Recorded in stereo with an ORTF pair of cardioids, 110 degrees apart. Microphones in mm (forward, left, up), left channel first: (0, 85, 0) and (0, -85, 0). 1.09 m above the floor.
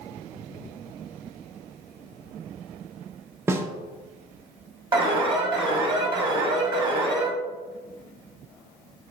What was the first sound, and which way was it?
A snare drum, 15° right.